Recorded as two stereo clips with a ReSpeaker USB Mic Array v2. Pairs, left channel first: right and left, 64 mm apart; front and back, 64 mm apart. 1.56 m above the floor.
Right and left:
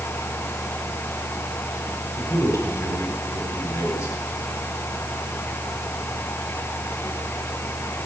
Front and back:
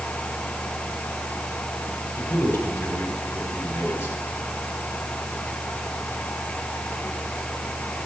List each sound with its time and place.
2.1 s a man speaking: 65° right, 5.5 m